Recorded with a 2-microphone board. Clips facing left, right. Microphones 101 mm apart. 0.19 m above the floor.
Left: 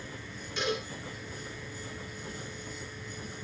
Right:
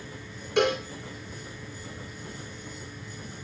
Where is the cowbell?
65° right (ahead or behind), 4 m.